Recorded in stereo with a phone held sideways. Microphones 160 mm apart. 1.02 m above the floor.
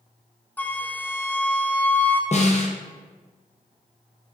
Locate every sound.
0.6 s a flute: 10° left (ahead or behind), 0.5 m
2.3 s a snare drum: 45° left (ahead or behind), 0.8 m